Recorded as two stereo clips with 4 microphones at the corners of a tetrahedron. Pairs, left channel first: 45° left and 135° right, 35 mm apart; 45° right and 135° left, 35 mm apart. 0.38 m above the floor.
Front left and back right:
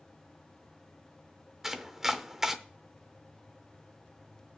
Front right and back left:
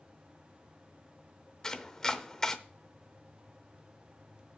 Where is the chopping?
75° right, 0.7 m.